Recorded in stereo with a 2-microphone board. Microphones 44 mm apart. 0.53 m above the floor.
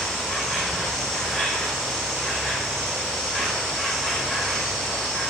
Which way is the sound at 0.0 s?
10° left (ahead or behind).